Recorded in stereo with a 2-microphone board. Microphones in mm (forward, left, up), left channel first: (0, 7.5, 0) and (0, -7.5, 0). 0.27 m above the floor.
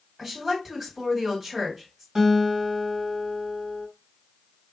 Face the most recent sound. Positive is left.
turn(degrees=-40)  # may be behind; listen again after turning